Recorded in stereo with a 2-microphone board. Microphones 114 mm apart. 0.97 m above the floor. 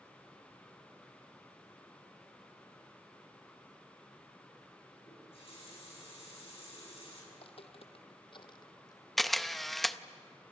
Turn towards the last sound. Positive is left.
turn(degrees=0)  # may be behind; listen again after turning